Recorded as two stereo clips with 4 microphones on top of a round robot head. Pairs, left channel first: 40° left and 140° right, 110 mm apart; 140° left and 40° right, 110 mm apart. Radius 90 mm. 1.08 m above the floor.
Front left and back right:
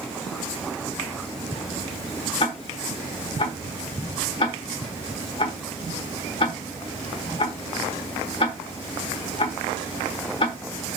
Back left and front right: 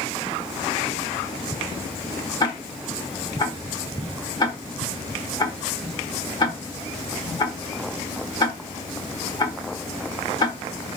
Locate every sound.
2.4 s ticking: 85° left, 1.1 m